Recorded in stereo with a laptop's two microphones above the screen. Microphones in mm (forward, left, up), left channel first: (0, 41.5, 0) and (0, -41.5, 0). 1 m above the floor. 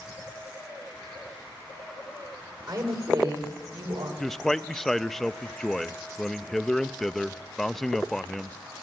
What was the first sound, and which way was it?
A woman speaking, 55° right (ahead or behind).